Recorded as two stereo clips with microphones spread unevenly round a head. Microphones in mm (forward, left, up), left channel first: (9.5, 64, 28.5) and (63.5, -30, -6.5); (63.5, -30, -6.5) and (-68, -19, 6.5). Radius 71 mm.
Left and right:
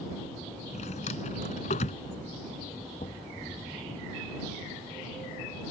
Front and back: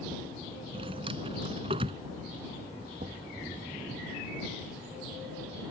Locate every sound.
0.7 s a drawer: 120° left
3.0 s knocking: 140° left